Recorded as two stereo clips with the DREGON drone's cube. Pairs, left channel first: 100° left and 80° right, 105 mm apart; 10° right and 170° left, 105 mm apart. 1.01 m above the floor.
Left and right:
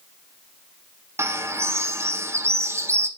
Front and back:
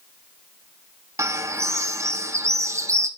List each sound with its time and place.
1.2 s a bird: 135° right, 0.5 m